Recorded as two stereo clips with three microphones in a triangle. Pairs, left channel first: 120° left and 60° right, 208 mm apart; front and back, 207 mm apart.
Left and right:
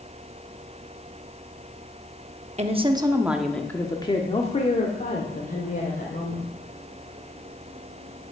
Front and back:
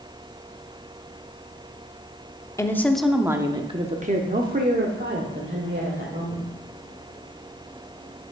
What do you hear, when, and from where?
2.6 s a woman speaking: 60° right, 0.8 m; by 6.5 s 155° left, 2.0 m